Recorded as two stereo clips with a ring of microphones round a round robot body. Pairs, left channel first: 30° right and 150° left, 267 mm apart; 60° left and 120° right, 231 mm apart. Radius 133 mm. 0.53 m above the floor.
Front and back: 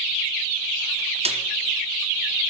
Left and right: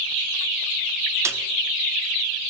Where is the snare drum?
175° left, 1.2 m.